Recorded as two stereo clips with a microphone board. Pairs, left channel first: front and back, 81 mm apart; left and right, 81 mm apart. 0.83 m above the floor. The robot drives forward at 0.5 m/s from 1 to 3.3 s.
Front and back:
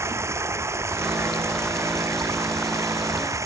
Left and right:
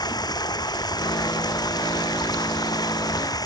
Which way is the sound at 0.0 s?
125° left.